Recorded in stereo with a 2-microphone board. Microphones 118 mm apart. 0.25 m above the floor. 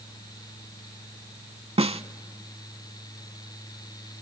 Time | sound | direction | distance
1.8 | a snare drum | 50° right (ahead or behind) | 0.5 m